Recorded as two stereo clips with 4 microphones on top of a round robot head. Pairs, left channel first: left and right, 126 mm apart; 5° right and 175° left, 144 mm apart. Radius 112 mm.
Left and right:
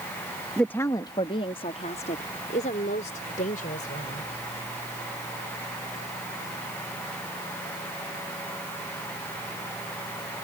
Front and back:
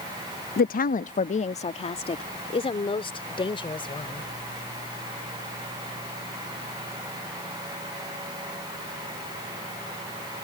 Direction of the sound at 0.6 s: 5° left.